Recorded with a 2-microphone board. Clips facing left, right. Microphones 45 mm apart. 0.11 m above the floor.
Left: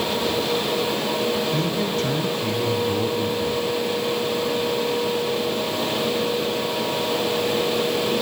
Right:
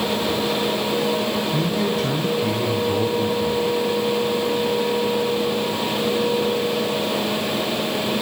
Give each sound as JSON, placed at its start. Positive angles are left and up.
{"t": 1.5, "sound": "a man speaking", "side_deg": -5, "distance_m": 5.0}